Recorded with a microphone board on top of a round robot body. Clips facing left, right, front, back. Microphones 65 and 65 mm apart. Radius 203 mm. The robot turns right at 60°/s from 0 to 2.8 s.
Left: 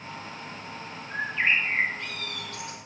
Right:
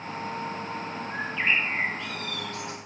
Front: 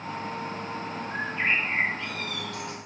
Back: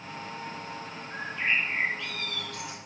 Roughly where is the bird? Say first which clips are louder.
Left 2 dB, front 2 dB; ahead.